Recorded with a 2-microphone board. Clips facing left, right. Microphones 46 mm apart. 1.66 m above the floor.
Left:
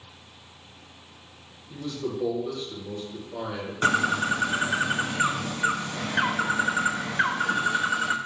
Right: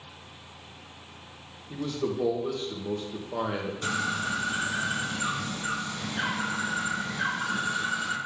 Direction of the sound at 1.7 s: 40° right (ahead or behind).